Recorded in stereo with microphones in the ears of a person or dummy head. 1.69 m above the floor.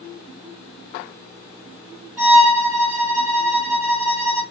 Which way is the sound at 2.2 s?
Centre (ahead or behind).